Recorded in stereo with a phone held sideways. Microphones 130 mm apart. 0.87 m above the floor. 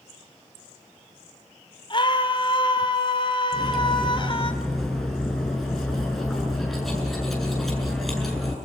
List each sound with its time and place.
1.9 s a scream: 40° left (ahead or behind), 3 m
3.5 s cutlery clinking: centre (ahead or behind), 7.5 m